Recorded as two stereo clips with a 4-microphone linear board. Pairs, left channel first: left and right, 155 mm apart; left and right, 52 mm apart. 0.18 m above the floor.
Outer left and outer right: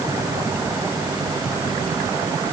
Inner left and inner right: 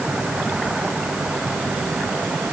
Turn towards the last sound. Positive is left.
No sound to turn to.